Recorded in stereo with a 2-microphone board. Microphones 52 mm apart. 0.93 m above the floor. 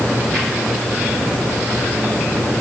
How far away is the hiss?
I don't hear a hiss.